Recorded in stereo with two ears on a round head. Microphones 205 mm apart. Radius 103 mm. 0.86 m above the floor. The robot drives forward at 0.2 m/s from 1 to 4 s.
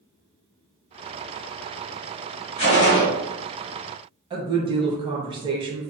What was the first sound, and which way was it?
A gunshot, 50° left (ahead or behind).